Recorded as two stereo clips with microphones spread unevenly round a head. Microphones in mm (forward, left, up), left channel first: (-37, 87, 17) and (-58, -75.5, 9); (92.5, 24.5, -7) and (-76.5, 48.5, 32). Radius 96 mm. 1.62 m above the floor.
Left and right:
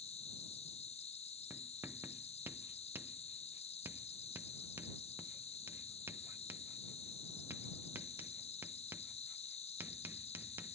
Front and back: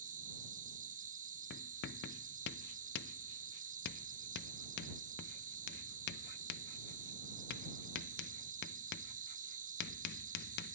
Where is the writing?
20° right.